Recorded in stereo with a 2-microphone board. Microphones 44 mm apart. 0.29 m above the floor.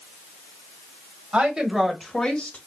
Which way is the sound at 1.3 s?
25° right (ahead or behind).